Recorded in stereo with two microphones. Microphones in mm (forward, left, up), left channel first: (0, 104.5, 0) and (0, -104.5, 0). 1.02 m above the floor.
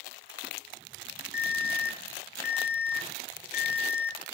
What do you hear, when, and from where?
1.3 s an alarm: 5° right (ahead or behind), 1.4 m